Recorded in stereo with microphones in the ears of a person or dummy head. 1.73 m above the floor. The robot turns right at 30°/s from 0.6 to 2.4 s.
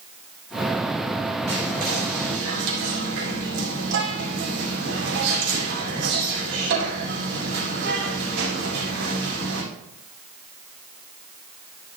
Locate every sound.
1.5 s whispering: 35° right (ahead or behind), 3.5 m; by 9.6 s 60° right (ahead or behind), 3.5 m